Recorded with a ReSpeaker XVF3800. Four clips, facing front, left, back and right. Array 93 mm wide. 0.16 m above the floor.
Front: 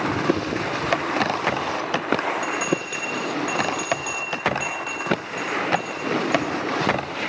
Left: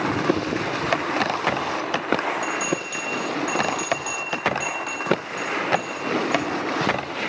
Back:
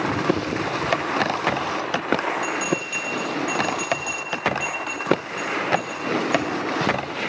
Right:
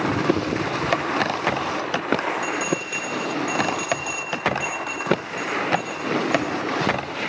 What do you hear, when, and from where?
2.4 s a bell: 25° right, 7.5 m